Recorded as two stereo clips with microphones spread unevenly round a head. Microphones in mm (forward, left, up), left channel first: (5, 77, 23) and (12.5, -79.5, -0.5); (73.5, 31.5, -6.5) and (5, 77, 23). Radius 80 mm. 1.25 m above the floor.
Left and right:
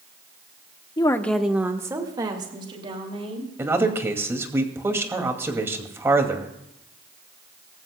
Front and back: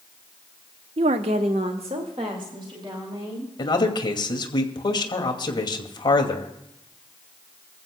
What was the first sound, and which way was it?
A woman speaking, 155° left.